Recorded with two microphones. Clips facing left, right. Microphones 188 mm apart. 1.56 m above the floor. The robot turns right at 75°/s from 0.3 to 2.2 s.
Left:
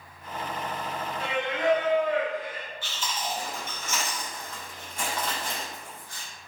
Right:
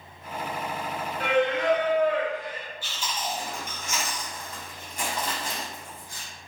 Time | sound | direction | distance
1.2 | singing | 120° right | 0.8 m
2.8 | chewing | 10° right (ahead or behind) | 1.5 m